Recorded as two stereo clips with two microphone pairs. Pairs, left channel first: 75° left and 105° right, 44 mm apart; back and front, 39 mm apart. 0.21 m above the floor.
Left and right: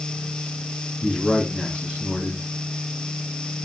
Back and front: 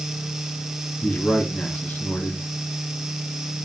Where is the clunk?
No clunk in this recording.